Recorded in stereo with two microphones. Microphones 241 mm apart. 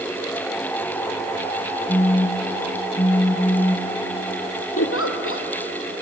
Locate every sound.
1.9 s a phone buzzing: 25° left (ahead or behind), 0.9 m
4.8 s a giggle: 65° left (ahead or behind), 1.9 m